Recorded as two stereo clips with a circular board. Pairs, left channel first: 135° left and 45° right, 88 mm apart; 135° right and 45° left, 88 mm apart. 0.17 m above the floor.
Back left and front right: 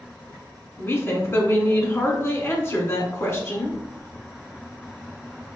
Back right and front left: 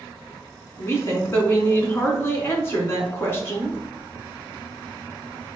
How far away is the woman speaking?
About 1.4 m.